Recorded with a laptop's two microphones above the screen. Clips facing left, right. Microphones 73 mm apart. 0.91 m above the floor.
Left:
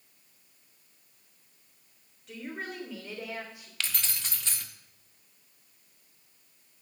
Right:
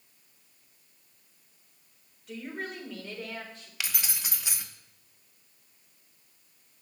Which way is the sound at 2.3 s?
Centre (ahead or behind).